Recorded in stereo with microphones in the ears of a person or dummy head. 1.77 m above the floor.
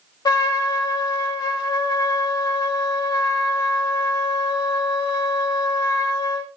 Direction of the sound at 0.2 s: 15° left (ahead or behind).